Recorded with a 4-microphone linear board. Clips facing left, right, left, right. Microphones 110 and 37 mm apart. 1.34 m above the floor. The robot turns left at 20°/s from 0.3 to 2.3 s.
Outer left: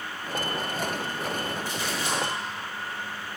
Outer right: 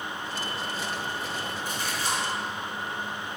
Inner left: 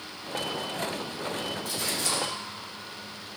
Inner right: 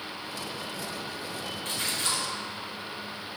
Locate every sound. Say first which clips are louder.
1.6 s a splash: outer left 1 dB, inner right 3 dB; 55° right (ahead or behind), 3.5 m; by 2.2 s 40° right (ahead or behind), 3.5 m